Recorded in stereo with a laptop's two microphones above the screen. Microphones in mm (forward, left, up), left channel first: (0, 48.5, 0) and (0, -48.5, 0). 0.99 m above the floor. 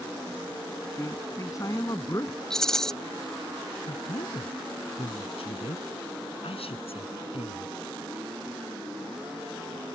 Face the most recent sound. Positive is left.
turn(degrees=80)